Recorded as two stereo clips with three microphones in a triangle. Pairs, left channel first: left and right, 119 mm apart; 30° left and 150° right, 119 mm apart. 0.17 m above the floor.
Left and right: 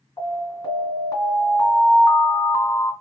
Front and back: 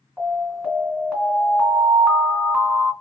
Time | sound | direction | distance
0.2 | an alarm | 130° left | 2 m